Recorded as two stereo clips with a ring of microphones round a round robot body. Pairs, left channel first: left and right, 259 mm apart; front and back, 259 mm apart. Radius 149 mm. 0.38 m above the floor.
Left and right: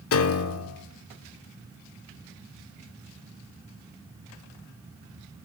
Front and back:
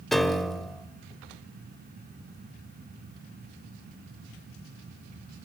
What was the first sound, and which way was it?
A piano, 90° left.